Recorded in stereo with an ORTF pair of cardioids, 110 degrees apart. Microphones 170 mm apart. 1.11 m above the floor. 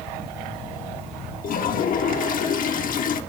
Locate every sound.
1.4 s a toilet flushing: 55° left, 1.3 m